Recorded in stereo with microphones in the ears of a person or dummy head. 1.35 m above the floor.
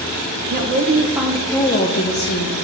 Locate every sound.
0.5 s a woman speaking: 55° right (ahead or behind), 0.9 m; by 2.5 s 55° left (ahead or behind), 1.3 m